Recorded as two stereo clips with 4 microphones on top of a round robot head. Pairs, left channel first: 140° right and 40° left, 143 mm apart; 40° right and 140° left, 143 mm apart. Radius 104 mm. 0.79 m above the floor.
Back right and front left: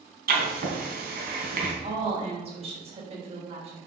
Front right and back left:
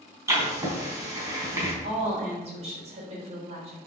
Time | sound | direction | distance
0.3 | writing | 65° left | 3.5 m
1.8 | a woman speaking | 90° left | 4.5 m